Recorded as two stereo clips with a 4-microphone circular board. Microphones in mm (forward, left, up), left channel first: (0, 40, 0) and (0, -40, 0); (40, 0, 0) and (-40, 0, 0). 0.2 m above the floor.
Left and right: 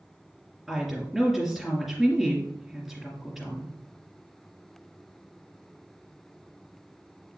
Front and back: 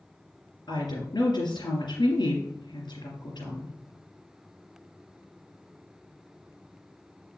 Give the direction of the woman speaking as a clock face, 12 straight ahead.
12 o'clock.